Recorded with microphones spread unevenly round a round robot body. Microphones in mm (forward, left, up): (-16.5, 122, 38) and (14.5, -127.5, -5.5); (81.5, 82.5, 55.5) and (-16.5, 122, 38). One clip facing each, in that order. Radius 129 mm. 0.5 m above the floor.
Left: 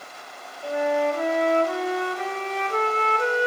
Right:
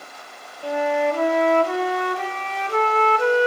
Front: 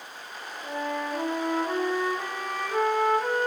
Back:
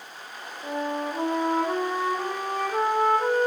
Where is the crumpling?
I don't hear crumpling.